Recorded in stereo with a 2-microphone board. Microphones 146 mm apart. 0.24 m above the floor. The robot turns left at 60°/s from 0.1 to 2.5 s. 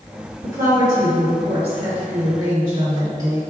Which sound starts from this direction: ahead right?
A woman speaking, at 0.4 s.